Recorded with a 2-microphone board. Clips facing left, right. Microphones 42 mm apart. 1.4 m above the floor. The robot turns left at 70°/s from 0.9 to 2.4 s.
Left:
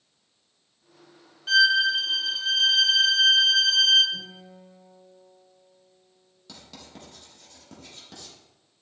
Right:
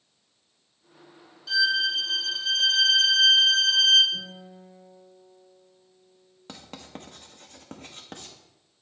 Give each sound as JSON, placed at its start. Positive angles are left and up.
{"t": 1.5, "sound": "a violin", "azimuth_deg": 70, "distance_m": 1.1}
{"t": 4.1, "sound": "a guitar", "side_deg": -5, "distance_m": 3.5}
{"t": 6.5, "sound": "writing", "side_deg": -45, "distance_m": 0.8}